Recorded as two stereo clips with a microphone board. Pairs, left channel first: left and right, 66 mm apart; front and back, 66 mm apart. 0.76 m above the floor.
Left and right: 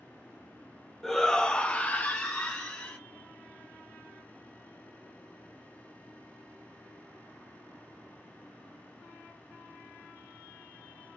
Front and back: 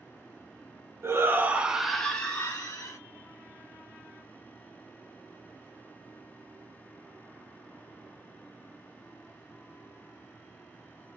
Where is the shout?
170° left, 0.9 m; by 3.0 s 35° left, 1.2 m.